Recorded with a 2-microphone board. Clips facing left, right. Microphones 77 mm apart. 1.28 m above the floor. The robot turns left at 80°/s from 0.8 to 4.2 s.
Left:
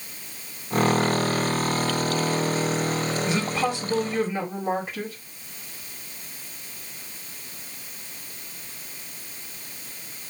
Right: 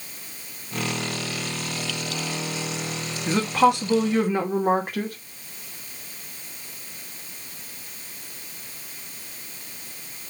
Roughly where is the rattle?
No rattle in this recording.